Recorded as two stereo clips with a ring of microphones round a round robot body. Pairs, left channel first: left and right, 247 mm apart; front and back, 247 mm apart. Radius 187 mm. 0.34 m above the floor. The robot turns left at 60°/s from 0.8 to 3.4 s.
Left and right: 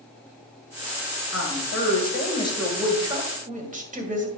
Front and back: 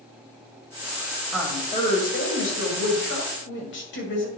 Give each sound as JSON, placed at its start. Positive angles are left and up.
{"t": 1.3, "sound": "a woman speaking", "azimuth_deg": 90, "distance_m": 2.0}